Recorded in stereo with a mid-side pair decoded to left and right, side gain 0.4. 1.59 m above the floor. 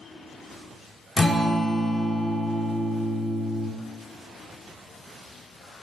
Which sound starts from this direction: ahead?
A guitar, at 1.2 s.